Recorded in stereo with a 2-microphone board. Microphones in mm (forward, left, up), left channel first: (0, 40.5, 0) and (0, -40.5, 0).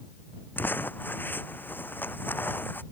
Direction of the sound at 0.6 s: 25° left (ahead or behind).